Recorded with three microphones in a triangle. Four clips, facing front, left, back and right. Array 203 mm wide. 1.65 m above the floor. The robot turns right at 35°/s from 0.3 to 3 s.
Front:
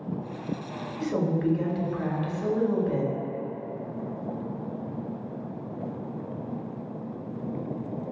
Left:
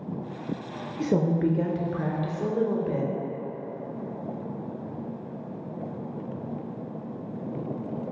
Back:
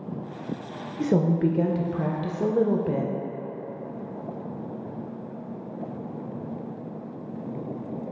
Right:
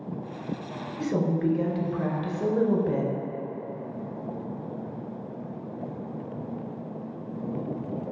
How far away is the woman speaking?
About 0.5 m.